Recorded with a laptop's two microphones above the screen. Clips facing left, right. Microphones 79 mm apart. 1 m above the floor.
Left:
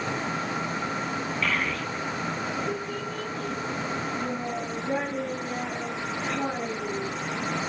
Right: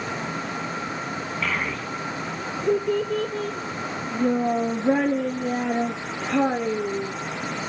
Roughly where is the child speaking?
Centre.